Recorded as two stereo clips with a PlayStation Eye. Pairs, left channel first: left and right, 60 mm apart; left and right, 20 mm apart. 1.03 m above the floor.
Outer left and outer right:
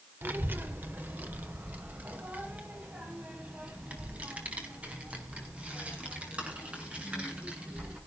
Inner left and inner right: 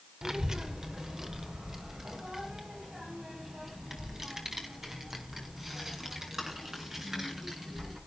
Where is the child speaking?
35° right (ahead or behind), 1.9 m; by 8.0 s 20° right (ahead or behind), 7.5 m.